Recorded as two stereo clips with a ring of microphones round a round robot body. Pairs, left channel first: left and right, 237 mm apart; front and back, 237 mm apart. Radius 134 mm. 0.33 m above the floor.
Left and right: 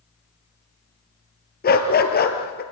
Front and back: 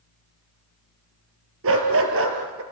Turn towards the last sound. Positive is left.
turn(degrees=140)